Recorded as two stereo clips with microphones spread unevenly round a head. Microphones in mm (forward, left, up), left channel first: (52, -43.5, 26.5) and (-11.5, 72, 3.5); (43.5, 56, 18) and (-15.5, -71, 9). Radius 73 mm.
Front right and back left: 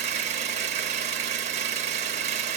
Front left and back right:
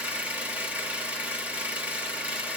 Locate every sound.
0.0 s an engine running: 165° left, 0.8 m